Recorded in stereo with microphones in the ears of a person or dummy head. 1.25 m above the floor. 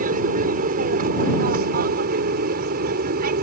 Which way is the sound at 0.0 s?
50° right (ahead or behind).